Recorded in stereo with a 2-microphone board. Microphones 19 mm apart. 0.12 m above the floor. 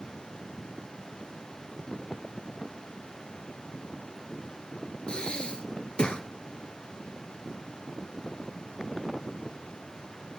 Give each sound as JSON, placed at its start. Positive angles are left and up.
{"t": 5.1, "sound": "breathing", "side_deg": 45, "distance_m": 1.3}